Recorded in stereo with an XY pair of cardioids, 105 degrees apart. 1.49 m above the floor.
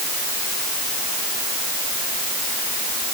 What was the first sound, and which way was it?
Only background noise.